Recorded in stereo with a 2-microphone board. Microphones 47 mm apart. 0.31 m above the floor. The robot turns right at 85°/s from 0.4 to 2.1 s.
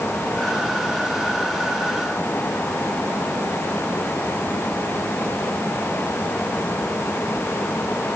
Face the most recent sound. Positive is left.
No sound to turn to.